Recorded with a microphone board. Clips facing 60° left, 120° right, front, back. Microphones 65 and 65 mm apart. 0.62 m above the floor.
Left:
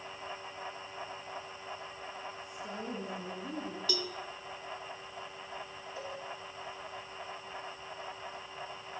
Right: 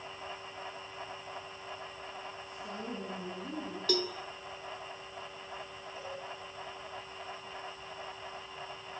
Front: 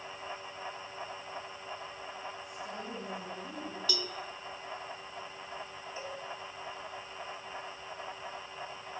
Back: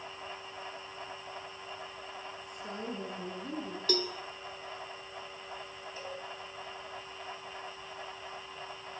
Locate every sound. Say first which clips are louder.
2.4 s a woman speaking: even, back 1 dB; 135° left, 9 m
3.9 s a cowbell: right 7 dB, back 9 dB; 145° right, 2 m
6.0 s a cowbell: left 1 dB, front 1 dB; 70° left, 10 m